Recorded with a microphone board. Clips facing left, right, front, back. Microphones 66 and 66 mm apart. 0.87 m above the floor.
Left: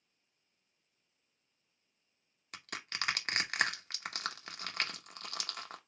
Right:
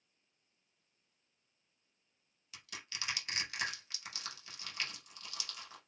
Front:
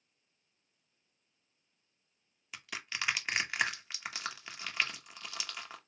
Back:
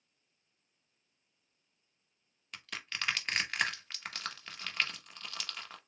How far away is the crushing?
About 0.8 m.